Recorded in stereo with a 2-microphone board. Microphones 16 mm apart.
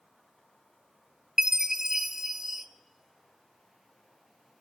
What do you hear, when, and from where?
1.4 s a chime: 30° right (ahead or behind), 1.1 m